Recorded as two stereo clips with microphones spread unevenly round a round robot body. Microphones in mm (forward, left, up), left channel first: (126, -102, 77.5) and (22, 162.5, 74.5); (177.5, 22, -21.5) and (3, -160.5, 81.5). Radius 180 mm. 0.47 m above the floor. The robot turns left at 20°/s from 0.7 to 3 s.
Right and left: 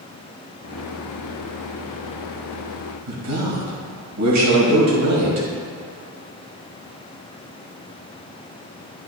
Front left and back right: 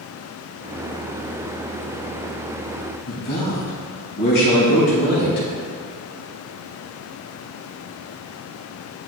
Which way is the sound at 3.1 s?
90° left.